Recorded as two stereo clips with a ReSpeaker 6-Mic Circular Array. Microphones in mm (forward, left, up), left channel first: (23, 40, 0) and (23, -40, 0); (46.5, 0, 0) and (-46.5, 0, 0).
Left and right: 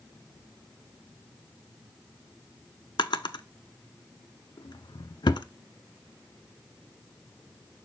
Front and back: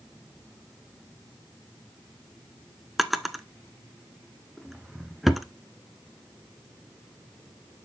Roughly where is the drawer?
Left.